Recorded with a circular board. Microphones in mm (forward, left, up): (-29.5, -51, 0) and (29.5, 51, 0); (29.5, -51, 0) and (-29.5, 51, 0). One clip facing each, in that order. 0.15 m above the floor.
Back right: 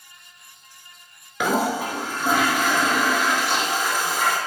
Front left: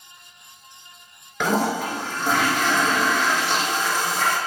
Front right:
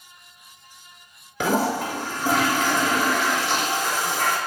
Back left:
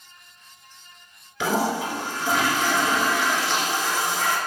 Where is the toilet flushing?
40° right, 0.7 m.